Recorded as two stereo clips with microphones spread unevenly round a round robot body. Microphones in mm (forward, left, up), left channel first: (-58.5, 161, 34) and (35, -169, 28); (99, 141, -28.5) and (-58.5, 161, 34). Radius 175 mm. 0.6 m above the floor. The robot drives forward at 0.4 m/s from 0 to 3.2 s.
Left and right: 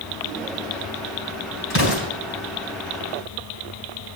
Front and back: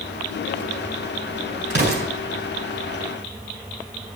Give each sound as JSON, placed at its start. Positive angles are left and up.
{"t": 1.7, "sound": "an explosion", "azimuth_deg": 160, "distance_m": 4.0}